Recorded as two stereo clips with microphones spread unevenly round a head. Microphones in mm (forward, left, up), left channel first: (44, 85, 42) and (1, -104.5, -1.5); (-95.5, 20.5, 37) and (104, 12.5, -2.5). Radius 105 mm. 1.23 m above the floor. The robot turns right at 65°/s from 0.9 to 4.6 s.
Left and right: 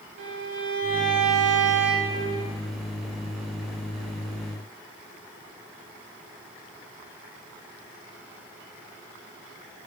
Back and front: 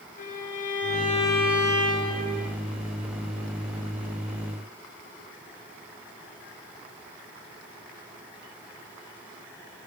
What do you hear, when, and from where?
0.2 s a violin: 135° right, 1.1 m; by 2.5 s 30° right, 1.1 m